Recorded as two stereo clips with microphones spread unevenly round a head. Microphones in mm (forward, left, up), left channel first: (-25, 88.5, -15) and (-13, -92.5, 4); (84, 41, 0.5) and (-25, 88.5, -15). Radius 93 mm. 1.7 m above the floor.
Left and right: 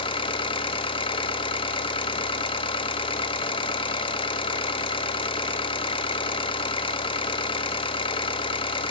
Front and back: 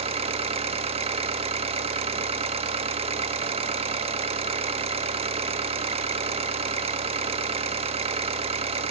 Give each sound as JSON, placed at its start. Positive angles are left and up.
{"t": 0.0, "sound": "an engine running", "azimuth_deg": 150, "distance_m": 1.3}